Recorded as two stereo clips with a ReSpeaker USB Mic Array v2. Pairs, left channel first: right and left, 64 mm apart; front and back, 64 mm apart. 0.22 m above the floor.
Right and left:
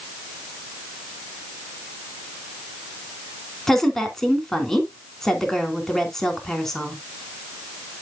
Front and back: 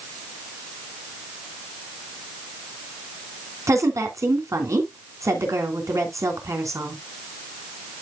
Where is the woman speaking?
170° right, 2.5 m.